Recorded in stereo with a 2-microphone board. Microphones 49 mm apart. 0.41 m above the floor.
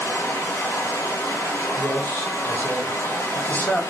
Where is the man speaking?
25° left (ahead or behind), 3.5 m.